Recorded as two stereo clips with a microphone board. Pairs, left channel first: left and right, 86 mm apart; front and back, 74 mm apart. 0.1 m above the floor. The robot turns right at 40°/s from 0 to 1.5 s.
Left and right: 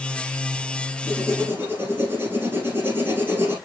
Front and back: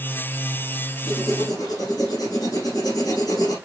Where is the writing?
45° right, 6 m; by 3.6 s 25° right, 6 m.